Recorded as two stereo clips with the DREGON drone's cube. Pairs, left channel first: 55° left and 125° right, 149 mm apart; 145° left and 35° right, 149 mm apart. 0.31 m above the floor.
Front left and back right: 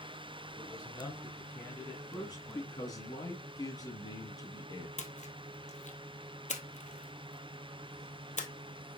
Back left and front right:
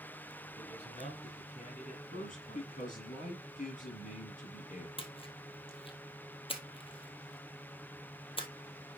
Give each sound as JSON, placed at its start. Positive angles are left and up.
{"t": 0.6, "sound": "a man speaking", "azimuth_deg": 115, "distance_m": 2.0}
{"t": 2.1, "sound": "a man speaking", "azimuth_deg": 120, "distance_m": 5.5}
{"t": 5.0, "sound": "a splash", "azimuth_deg": 90, "distance_m": 1.3}